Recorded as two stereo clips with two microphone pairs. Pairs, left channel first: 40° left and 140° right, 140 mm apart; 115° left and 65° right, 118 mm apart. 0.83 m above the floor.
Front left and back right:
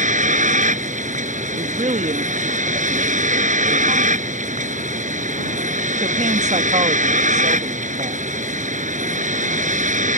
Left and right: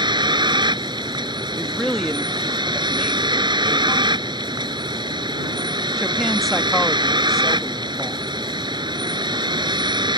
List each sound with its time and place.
0.0 s a vehicle: 115° right
1.5 s a woman speaking: 155° right